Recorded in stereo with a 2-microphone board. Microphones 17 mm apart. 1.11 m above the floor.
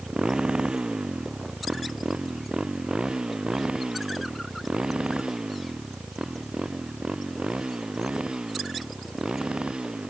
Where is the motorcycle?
70° right (ahead or behind); by 10.1 s 65° right (ahead or behind).